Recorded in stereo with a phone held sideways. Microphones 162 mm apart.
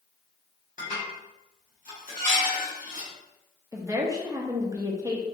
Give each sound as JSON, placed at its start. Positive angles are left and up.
{"t": 0.8, "sound": "dishes clattering", "side_deg": 55, "distance_m": 1.7}
{"t": 3.7, "sound": "a woman speaking", "side_deg": -20, "distance_m": 0.6}